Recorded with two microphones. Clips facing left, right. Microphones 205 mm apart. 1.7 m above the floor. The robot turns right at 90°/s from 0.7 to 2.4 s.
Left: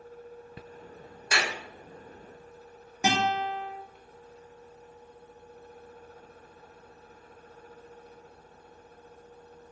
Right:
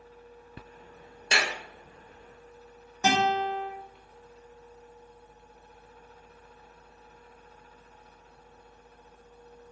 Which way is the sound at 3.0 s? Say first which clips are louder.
Right 2 dB; 15° left (ahead or behind).